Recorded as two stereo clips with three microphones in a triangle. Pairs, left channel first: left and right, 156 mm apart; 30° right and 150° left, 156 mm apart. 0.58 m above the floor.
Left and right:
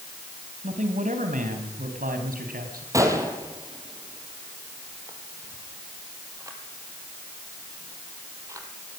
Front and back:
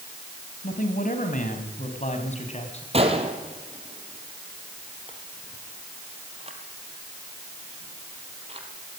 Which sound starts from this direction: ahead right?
A man speaking, at 0.6 s.